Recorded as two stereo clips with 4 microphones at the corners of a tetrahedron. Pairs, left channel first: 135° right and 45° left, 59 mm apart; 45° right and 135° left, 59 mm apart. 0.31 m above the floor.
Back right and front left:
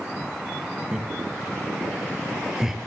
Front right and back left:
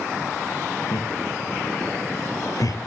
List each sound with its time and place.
0.9 s laughter: 35° right, 8 m; by 2.8 s 40° right, 6 m